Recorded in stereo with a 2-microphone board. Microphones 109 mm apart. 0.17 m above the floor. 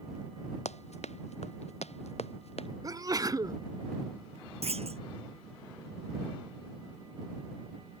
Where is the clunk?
70° right (ahead or behind).